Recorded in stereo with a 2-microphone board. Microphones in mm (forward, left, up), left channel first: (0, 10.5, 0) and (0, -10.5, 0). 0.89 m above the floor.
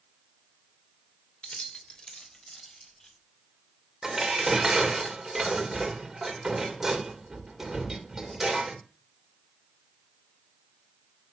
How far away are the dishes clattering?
About 2 m.